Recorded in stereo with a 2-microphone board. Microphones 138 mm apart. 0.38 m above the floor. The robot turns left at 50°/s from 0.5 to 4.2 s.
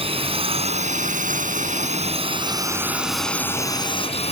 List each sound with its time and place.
0.0 s a drone: 45° right; by 4.3 s 130° left